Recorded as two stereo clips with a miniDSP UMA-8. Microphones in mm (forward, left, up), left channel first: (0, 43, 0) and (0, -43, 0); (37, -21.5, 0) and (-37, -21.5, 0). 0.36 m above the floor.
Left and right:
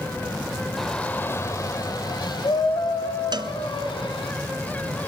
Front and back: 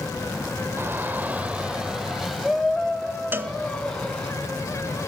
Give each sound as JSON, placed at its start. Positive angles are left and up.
{"t": 0.8, "sound": "a shout", "azimuth_deg": 175, "distance_m": 1.1}
{"t": 3.3, "sound": "a cowbell", "azimuth_deg": -120, "distance_m": 0.9}